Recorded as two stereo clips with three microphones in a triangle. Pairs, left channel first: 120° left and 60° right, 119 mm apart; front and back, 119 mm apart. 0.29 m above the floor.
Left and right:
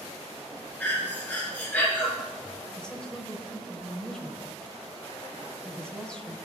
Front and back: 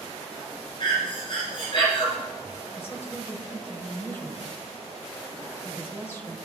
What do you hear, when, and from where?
0.8 s breathing: 45° left, 3.5 m
2.8 s a woman speaking: 45° left, 1.3 m